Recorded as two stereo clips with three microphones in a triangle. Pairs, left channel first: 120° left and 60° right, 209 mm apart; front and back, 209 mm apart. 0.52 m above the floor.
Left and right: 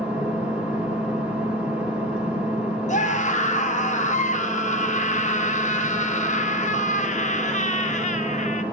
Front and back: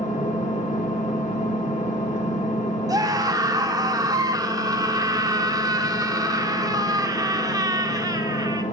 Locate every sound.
0.0 s an engine running: 20° left, 1.2 m
2.9 s a scream: 120° left, 0.8 m